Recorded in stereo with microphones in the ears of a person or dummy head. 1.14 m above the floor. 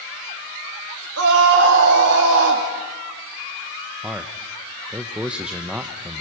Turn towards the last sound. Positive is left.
turn(degrees=-5)  # may be behind; listen again after turning